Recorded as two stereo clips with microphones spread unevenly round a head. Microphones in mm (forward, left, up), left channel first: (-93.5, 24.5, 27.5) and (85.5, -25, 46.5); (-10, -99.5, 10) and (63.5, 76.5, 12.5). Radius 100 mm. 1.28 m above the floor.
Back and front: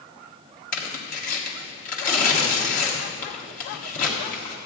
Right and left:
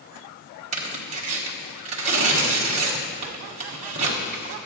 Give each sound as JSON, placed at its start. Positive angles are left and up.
{"t": 0.7, "sound": "tearing paper", "azimuth_deg": 120, "distance_m": 1.7}